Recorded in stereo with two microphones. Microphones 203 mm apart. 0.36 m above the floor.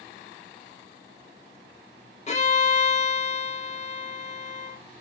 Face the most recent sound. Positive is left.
turn(degrees=35)  # may be behind; listen again after turning